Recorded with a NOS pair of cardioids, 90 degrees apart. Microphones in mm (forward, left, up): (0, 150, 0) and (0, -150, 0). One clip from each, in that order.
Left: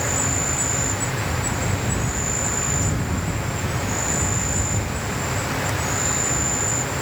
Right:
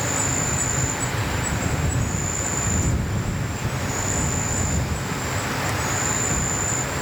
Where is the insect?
20° left.